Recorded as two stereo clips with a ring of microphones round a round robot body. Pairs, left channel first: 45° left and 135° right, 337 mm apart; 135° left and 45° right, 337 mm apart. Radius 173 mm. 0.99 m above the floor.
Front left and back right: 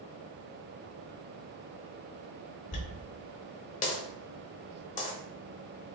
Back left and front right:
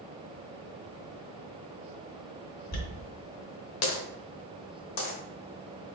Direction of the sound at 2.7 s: 110° left.